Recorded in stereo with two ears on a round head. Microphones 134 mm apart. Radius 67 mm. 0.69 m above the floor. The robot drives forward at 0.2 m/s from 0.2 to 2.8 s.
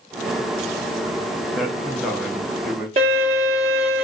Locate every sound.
1.6 s a man speaking: centre (ahead or behind), 0.5 m
3.0 s a violin: 40° right (ahead or behind), 1.1 m